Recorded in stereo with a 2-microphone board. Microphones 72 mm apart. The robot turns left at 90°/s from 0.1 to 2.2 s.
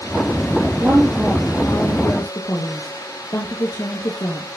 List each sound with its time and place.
0.8 s a woman speaking: 130° right, 2.5 m; by 4.5 s 105° left, 2.5 m